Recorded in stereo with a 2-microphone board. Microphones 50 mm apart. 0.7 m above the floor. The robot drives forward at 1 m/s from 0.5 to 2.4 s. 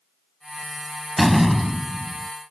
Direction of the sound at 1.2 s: Centre (ahead or behind).